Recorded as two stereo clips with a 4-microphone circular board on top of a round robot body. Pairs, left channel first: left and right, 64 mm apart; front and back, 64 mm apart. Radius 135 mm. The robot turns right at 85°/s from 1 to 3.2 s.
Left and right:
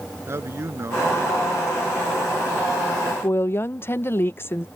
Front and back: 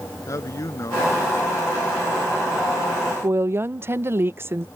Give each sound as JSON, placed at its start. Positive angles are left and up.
{"t": 0.3, "sound": "a man speaking", "azimuth_deg": -40}
{"t": 3.2, "sound": "a woman speaking", "azimuth_deg": 135}